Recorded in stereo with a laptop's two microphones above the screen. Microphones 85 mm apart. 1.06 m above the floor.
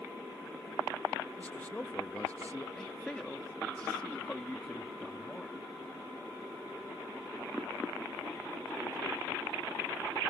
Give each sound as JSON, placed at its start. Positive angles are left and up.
{"t": 1.4, "sound": "a man speaking", "side_deg": 15}
{"t": 2.8, "sound": "a man speaking", "side_deg": 10}